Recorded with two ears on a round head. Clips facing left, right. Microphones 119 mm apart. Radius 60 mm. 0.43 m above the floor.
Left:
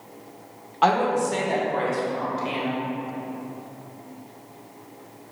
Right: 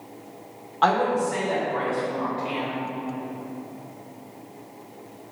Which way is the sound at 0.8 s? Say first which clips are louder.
Left 1 dB; 10° left (ahead or behind).